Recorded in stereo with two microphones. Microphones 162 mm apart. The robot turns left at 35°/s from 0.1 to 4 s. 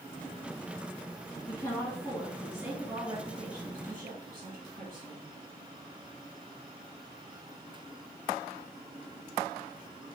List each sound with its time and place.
1.5 s a woman speaking: 25° left, 1.8 m; by 5.3 s 65° right, 1.8 m